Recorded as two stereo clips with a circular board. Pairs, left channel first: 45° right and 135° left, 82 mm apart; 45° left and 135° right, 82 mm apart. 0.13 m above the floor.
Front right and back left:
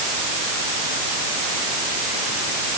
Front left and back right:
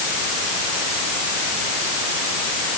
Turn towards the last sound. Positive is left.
No sound to turn to.